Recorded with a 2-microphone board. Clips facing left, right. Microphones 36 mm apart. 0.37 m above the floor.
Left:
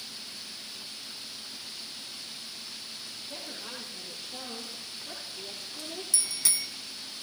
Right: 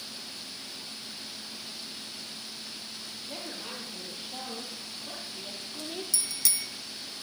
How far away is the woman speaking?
About 9.5 m.